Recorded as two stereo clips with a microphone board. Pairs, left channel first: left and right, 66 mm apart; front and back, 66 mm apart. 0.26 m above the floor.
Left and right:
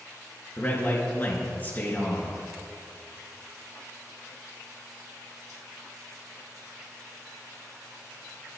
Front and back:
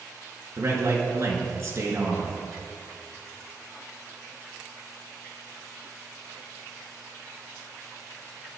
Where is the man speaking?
150° left, 4 m.